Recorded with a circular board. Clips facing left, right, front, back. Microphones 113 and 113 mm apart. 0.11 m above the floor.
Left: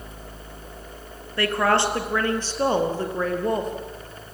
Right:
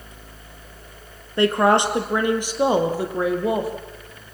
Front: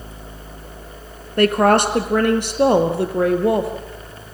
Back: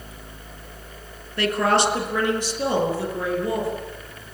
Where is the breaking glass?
No breaking glass in this recording.